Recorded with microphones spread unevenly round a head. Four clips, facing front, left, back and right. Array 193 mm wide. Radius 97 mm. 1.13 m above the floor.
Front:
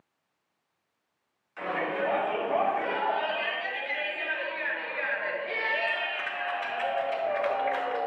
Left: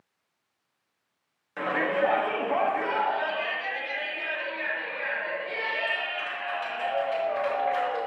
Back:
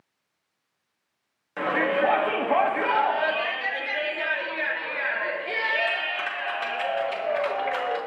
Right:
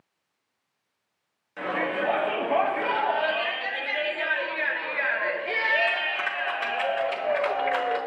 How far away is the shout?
About 2.5 m.